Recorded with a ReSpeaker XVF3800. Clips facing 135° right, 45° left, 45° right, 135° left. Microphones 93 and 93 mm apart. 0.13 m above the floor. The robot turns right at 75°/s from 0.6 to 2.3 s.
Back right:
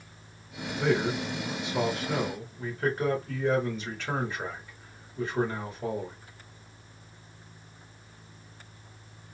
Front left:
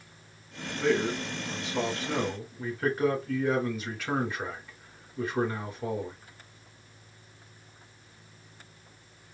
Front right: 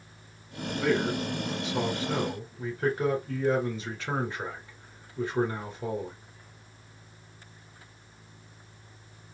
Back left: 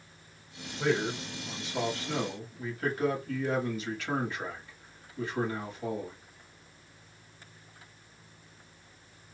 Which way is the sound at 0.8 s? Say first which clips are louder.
Even, front right 2 dB; 145° right.